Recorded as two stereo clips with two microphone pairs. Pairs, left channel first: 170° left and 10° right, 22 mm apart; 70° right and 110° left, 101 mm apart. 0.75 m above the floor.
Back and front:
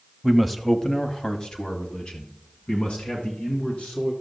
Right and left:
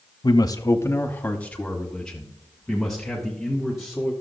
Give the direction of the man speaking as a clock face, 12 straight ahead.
3 o'clock.